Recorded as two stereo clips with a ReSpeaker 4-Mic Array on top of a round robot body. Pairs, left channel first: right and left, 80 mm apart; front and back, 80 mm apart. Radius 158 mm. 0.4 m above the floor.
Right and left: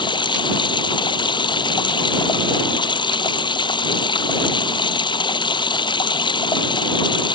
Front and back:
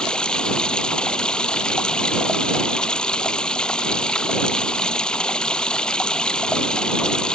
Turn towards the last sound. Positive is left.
turn(degrees=-80)